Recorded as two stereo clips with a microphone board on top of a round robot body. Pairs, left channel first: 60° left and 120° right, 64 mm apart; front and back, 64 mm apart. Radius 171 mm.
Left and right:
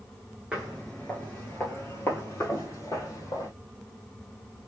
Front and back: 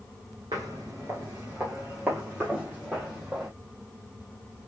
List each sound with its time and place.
0.5 s footsteps: 165° left, 0.6 m; by 3.5 s 100° left, 1.8 m